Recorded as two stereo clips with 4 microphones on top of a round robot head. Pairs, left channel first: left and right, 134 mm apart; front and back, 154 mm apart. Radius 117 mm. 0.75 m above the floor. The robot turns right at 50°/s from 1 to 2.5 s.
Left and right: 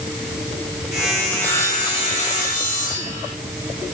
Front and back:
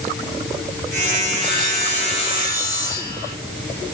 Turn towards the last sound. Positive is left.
turn(degrees=65)